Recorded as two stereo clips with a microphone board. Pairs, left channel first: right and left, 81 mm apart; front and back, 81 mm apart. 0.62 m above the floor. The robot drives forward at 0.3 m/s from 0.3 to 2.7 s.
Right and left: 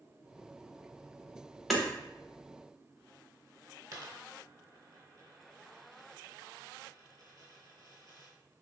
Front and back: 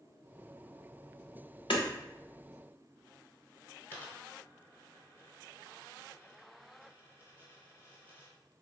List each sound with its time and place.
1.7 s hammering: straight ahead, 0.6 m
3.9 s a dropped coin: 60° left, 1.0 m